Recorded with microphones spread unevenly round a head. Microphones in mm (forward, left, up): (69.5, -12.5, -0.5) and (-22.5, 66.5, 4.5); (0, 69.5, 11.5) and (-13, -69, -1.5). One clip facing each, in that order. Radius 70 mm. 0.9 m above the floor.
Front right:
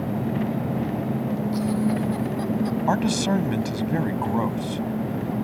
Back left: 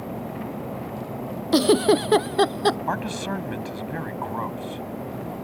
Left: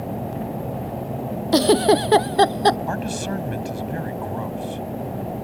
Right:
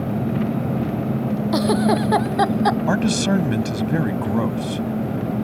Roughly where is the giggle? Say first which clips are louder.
Back left 9 dB, left 4 dB; behind left.